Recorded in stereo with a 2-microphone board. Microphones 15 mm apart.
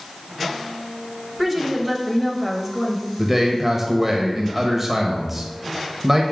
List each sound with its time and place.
1.4 s a woman speaking: 10° right (ahead or behind), 0.9 m
3.2 s a man speaking: 20° right (ahead or behind), 0.9 m